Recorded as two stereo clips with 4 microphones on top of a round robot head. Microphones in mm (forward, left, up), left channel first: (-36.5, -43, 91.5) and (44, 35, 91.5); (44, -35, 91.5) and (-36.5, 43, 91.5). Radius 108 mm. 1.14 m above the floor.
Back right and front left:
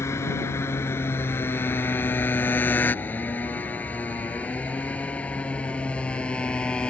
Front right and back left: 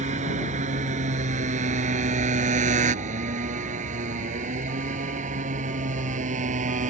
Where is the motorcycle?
155° left; by 6.9 s 140° left.